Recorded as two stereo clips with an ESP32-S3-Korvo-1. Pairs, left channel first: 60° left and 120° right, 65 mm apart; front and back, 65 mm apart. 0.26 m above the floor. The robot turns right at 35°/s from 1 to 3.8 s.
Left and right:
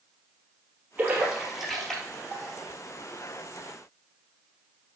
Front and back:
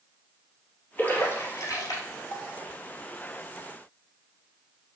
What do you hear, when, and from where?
1.0 s a splash: 60° right, 2.5 m; by 2.4 s 10° right, 2.5 m